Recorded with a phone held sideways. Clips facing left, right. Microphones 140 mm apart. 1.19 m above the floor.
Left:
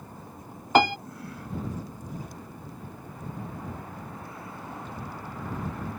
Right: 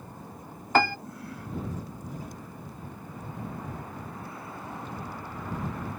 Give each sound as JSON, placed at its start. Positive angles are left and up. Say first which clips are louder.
{"t": 0.8, "sound": "a piano", "louder": "left 3 dB", "side_deg": 20}